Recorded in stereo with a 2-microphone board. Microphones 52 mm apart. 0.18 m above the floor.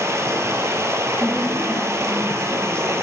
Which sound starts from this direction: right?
Running water, at 0.0 s.